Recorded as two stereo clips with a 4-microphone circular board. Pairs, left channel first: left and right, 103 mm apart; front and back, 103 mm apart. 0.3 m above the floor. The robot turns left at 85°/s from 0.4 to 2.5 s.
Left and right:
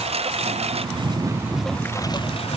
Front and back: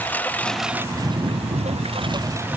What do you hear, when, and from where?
0.0 s a lawn mower: 75° right; by 2.6 s 105° left